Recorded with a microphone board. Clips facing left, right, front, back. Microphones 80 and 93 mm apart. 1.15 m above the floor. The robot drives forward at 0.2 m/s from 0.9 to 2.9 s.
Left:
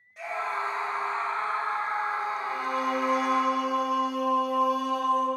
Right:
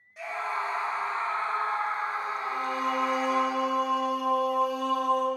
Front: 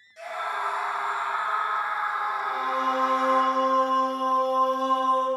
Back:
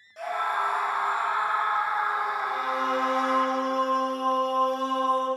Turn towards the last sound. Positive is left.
turn(degrees=25)